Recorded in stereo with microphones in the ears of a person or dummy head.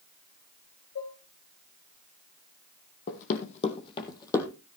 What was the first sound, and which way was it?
Dishes clattering, 85° left.